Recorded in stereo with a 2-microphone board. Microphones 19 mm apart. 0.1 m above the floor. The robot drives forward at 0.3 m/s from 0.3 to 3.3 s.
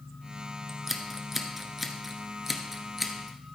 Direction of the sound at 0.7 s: 15° right (ahead or behind).